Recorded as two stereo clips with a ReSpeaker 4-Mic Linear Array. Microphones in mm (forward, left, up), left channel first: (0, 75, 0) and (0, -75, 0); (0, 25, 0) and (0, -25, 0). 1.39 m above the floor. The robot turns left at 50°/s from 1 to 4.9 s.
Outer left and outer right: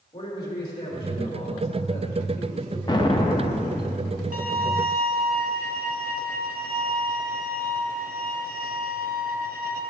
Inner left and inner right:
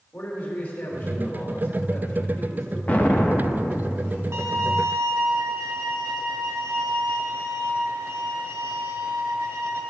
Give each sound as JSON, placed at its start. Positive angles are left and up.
{"t": 0.1, "sound": "a man speaking", "azimuth_deg": 145, "distance_m": 3.0}
{"t": 2.9, "sound": "an explosion", "side_deg": 25, "distance_m": 0.7}
{"t": 4.3, "sound": "a violin", "side_deg": -60, "distance_m": 0.9}